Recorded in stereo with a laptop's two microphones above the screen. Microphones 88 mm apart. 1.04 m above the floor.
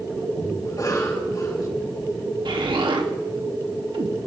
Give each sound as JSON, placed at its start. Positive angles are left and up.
{"t": 0.7, "sound": "a cough", "side_deg": 40, "distance_m": 5.5}
{"t": 2.5, "sound": "an explosion", "side_deg": -70, "distance_m": 1.9}